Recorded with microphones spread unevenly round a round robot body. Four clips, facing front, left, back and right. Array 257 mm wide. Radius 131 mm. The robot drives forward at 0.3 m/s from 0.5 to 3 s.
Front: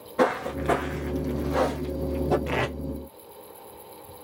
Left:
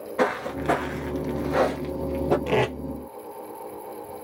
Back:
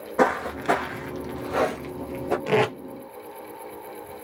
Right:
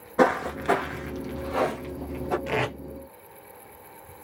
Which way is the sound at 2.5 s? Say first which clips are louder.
Left 5 dB, back 6 dB; 140° left.